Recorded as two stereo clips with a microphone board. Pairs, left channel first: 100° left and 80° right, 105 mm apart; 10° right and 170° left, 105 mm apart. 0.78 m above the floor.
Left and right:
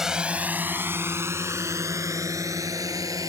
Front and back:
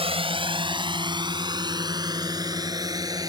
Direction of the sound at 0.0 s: 165° right.